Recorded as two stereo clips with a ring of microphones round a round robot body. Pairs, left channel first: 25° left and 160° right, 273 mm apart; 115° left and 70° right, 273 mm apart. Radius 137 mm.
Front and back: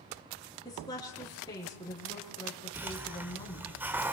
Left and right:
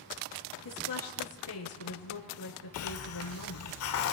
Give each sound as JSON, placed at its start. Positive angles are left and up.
{"t": 0.7, "sound": "a woman speaking", "azimuth_deg": 100, "distance_m": 7.0}
{"t": 2.7, "sound": "a hiss", "azimuth_deg": 120, "distance_m": 1.3}